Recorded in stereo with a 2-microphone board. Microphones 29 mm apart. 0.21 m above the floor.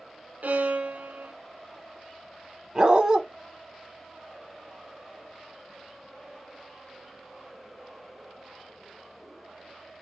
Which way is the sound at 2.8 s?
30° right (ahead or behind).